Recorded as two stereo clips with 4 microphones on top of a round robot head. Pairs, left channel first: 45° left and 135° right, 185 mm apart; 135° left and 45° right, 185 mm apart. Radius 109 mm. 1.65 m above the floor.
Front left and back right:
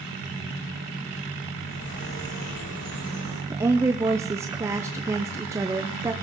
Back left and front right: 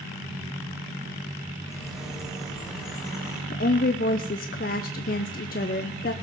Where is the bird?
40° left, 5.5 m.